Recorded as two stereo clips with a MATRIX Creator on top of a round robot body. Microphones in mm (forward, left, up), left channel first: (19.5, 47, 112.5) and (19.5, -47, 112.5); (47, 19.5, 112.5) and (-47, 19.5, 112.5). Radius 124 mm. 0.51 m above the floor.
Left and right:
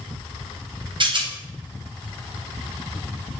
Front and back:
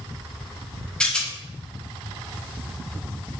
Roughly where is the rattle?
Right.